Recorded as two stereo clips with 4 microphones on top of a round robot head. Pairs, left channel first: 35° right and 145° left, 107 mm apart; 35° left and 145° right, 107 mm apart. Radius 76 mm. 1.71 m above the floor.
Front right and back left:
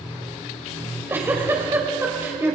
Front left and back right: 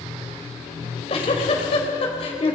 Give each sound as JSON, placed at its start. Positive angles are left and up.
{"t": 0.8, "sound": "a giggle", "azimuth_deg": 75, "distance_m": 4.0}